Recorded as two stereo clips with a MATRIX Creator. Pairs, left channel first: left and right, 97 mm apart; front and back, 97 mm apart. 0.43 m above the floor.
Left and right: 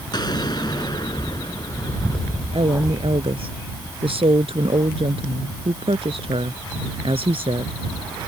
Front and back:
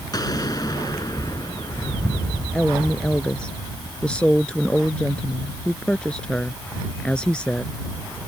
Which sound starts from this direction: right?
A woman speaking, at 2.5 s.